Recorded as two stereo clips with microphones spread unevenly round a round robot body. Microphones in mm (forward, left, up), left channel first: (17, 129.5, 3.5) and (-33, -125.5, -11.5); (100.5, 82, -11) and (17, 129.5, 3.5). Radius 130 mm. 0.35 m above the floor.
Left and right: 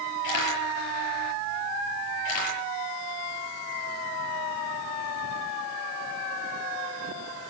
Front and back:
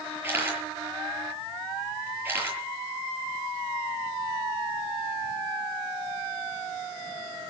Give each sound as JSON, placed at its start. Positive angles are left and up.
{"t": 0.2, "sound": "a camera shutter", "azimuth_deg": 80, "distance_m": 8.5}